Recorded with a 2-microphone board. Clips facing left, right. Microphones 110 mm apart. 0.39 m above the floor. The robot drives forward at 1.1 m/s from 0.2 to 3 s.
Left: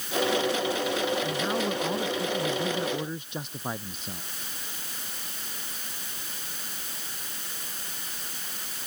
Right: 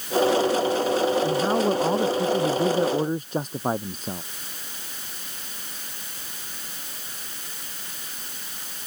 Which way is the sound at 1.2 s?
35° right (ahead or behind).